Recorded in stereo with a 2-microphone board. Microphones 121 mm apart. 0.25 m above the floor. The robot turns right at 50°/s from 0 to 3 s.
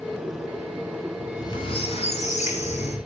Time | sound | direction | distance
1.2 | a squeak | 25° left | 3 m